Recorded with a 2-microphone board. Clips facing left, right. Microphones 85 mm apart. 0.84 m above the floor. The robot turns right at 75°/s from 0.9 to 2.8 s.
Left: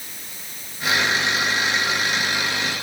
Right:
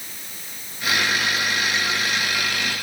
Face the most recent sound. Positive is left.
No sound to turn to.